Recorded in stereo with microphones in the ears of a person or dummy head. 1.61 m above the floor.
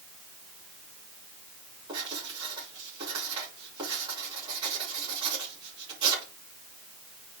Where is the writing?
30° right (ahead or behind), 5 m.